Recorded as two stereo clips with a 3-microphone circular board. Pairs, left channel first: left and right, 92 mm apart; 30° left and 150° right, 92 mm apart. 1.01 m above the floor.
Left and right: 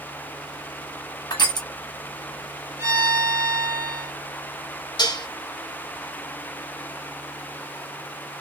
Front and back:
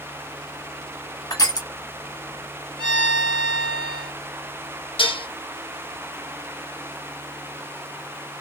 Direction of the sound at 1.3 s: 65° left.